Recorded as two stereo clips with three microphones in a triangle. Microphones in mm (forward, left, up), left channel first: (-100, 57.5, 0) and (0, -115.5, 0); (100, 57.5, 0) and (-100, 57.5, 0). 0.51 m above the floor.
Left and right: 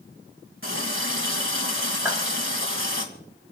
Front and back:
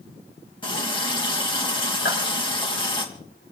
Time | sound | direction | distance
0.6 | a running tap | 65° right | 2.5 m
2.0 | a clap | 25° left | 7.5 m